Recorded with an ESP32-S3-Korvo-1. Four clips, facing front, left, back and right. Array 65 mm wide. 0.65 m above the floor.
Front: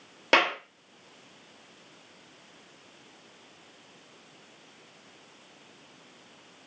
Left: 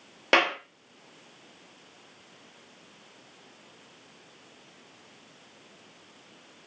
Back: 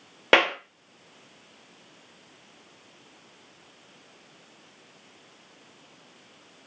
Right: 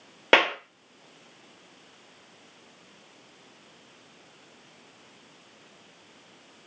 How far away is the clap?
About 0.8 m.